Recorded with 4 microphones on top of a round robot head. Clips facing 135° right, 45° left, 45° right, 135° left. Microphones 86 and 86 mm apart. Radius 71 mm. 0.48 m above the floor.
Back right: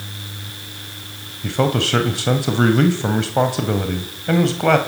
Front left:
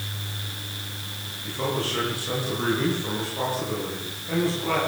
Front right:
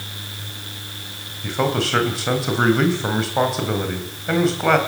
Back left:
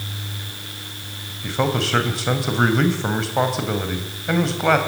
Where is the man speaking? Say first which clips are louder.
Back right 8 dB, front right 1 dB; 135° right, 2.5 m.